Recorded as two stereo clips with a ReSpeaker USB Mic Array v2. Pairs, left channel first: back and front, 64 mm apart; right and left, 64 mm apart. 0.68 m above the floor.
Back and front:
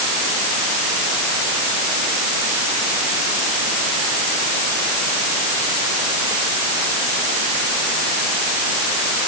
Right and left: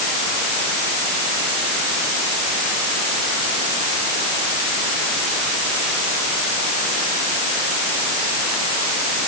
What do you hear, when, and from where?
Only background noise.